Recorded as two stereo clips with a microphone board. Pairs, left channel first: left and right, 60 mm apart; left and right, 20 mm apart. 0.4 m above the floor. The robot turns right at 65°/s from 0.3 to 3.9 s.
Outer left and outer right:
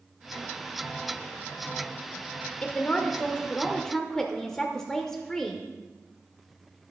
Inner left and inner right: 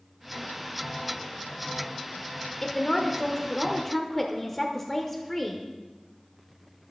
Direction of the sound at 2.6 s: 20° left (ahead or behind).